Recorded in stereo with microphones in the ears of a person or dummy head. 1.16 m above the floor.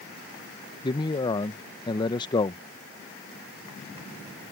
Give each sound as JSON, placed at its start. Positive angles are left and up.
{"t": 0.8, "sound": "a man speaking", "side_deg": 25}